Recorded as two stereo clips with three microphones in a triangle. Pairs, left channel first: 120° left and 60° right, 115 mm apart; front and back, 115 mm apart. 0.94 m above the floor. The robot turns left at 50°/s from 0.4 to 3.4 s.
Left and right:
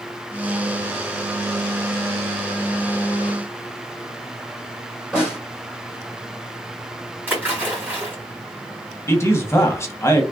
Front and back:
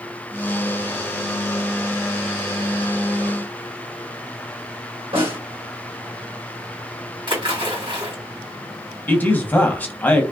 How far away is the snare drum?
About 2.5 m.